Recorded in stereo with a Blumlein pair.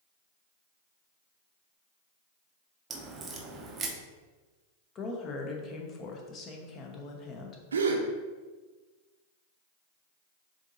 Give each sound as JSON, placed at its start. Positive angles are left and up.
{"t": 2.9, "sound": "a crack", "azimuth_deg": -20, "distance_m": 0.7}
{"t": 5.0, "sound": "a woman speaking", "azimuth_deg": 30, "distance_m": 0.9}
{"t": 7.7, "sound": "a gasp", "azimuth_deg": -70, "distance_m": 0.6}